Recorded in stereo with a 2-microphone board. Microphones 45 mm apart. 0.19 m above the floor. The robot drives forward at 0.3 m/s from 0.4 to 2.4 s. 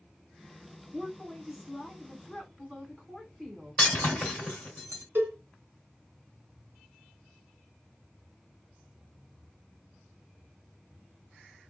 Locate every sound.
0.9 s a woman speaking: centre (ahead or behind), 1.0 m
3.8 s breaking glass: 10° left (ahead or behind), 3.5 m
5.2 s a cowbell: 60° right (ahead or behind), 1.1 m